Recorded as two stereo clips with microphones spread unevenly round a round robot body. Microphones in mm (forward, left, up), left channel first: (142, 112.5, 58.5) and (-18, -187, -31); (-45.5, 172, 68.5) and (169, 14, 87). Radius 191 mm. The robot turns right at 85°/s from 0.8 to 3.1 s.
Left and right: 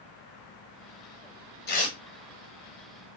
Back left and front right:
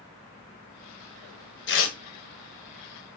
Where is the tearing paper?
105° left, 0.8 m; by 2.0 s 130° left, 0.8 m.